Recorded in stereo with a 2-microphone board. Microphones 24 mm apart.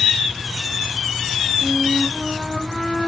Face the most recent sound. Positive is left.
turn(degrees=0)  # may be behind; listen again after turning